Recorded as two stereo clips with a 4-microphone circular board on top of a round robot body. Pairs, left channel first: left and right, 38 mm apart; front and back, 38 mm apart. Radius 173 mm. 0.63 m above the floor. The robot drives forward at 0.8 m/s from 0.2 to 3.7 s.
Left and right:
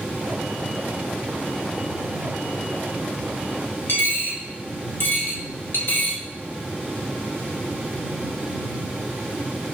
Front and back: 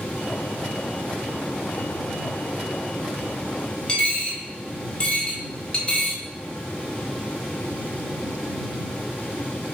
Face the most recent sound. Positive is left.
turn(degrees=65)